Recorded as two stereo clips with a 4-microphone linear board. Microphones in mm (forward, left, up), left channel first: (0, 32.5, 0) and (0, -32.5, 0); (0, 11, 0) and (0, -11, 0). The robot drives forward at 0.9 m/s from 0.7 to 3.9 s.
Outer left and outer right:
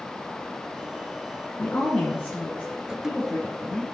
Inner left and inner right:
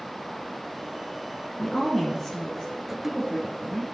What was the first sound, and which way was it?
A woman speaking, 25° left (ahead or behind).